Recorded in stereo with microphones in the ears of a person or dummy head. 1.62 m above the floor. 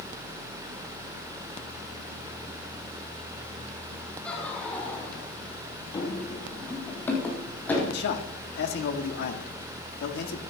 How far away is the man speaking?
About 1.7 m.